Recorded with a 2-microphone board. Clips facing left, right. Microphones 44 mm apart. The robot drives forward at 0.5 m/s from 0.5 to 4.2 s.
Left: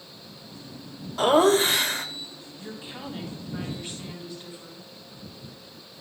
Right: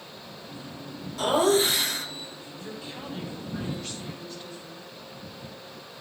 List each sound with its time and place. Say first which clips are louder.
1.2 s laughter: left 3 dB; 40° left (ahead or behind), 1.8 m; by 2.0 s 45° left (ahead or behind), 1.6 m
2.6 s a woman speaking: left 1 dB; 20° left (ahead or behind), 3.5 m